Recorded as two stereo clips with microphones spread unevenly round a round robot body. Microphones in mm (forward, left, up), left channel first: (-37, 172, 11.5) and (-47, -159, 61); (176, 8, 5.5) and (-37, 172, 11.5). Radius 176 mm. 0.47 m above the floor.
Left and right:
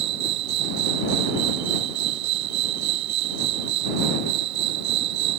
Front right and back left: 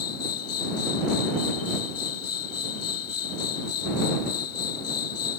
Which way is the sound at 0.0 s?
70° right.